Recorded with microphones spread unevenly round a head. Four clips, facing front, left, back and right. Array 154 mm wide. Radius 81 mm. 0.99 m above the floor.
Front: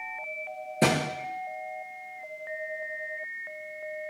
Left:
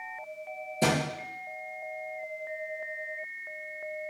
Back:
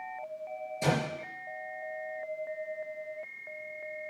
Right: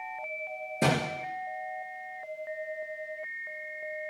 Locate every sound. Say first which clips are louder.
0.8 s a thud: even, front 5 dB; 15° right, 7.5 m